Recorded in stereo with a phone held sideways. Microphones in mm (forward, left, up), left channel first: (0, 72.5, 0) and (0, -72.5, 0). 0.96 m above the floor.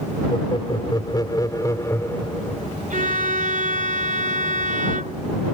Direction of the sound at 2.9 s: 75° right (ahead or behind).